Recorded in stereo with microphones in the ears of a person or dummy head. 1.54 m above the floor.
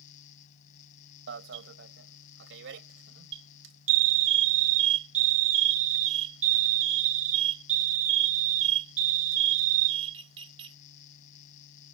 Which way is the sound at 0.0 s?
40° left (ahead or behind).